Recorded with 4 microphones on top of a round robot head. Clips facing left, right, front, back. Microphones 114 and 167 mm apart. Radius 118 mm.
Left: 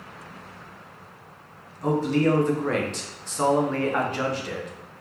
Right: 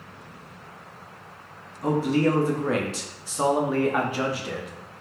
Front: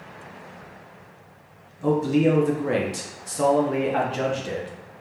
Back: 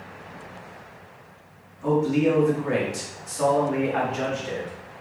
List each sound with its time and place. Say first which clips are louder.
1.8 s a man speaking: even, front 1 dB; 15° right, 0.6 m